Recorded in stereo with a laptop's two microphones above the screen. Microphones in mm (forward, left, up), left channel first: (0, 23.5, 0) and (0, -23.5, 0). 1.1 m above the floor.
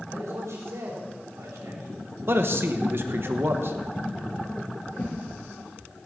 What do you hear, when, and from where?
0.1 s a man speaking: 85° right, 5 m
2.3 s a man speaking: 55° right (ahead or behind), 1.1 m
4.9 s a whoosh: 30° left (ahead or behind), 7 m